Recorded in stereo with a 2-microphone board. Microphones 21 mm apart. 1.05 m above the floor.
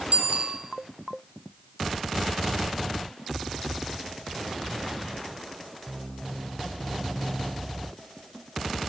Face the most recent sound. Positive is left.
turn(degrees=-85)